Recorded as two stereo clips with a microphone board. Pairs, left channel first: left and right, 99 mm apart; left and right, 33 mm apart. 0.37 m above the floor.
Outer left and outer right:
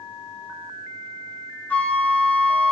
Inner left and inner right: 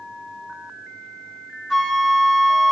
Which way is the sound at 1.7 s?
15° left (ahead or behind).